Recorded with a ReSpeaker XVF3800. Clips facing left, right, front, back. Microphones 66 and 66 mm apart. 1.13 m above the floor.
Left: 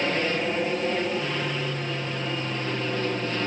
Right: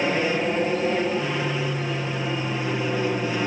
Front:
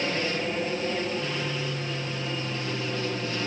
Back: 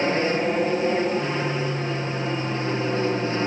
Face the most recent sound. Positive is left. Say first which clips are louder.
# right 3 dB, back 6 dB
turn(degrees=-160)